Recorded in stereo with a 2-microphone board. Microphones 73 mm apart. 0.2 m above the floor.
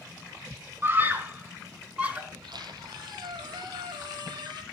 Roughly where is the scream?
Right.